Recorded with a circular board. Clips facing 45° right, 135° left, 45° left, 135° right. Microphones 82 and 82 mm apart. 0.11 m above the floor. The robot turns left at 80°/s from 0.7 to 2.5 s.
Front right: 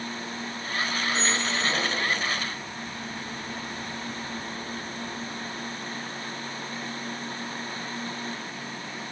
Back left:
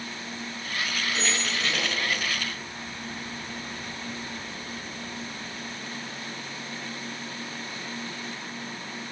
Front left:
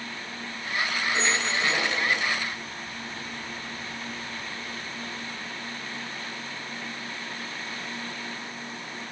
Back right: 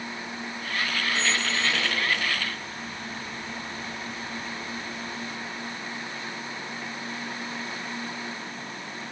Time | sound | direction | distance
1.1 | a squeak | 50° left | 1.5 m